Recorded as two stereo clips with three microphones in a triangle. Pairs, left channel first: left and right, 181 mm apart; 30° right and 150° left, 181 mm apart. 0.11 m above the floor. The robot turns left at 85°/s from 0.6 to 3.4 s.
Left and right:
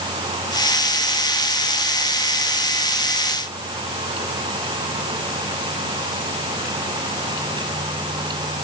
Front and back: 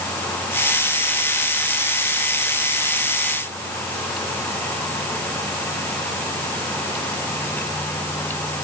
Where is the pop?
I don't hear a pop.